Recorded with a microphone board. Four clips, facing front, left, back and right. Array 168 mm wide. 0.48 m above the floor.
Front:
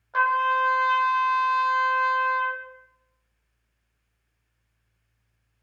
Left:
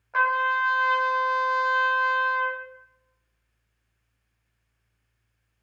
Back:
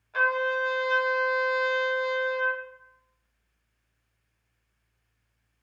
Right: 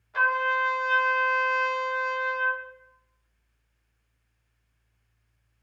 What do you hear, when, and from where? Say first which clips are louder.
0.1 s a trumpet: left 2 dB, front 4 dB; 60° left, 0.8 m